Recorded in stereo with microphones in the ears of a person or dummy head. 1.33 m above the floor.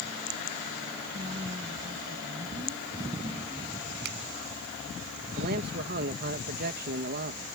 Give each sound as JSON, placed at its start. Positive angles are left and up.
{"t": 1.1, "sound": "a woman speaking", "side_deg": -20}
{"t": 4.0, "sound": "a finger snap", "side_deg": -75}
{"t": 5.4, "sound": "a man speaking", "side_deg": -50}